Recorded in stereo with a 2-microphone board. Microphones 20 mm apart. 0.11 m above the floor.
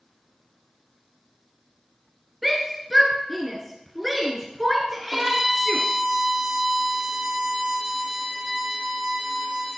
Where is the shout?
Centre (ahead or behind), 1.2 m.